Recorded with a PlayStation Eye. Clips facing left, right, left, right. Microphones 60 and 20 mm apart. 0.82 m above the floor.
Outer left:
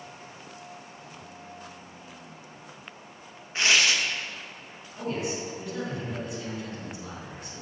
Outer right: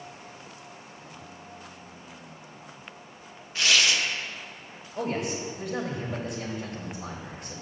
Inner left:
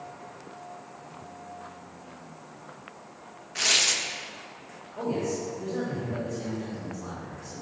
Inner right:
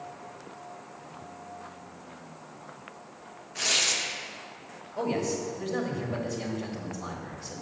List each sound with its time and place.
3.5 s tearing paper: 30° left (ahead or behind), 0.7 m
5.0 s a man speaking: 60° right (ahead or behind), 1.6 m